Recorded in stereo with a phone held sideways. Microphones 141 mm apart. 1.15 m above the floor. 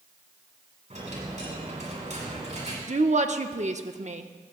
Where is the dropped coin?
55° right (ahead or behind), 5.5 m.